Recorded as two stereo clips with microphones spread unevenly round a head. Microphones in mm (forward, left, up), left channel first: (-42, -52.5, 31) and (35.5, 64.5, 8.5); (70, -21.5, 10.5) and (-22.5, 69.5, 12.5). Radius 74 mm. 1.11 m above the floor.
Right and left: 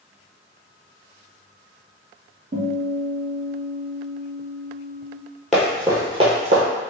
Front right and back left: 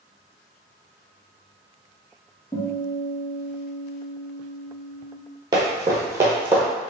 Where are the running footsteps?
170° left, 1.2 m; by 6.6 s 65° left, 1.3 m.